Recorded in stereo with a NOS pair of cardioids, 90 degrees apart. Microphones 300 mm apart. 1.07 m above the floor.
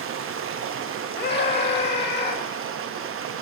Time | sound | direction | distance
0.0 | running water | 45° right | 0.7 m
1.2 | a scream | 35° left | 1.8 m